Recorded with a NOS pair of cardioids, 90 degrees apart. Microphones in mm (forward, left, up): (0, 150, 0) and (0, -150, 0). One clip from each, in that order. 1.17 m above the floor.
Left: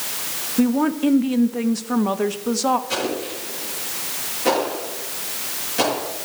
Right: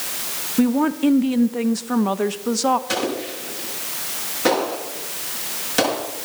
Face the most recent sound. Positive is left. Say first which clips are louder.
# right 1 dB
turn(degrees=-70)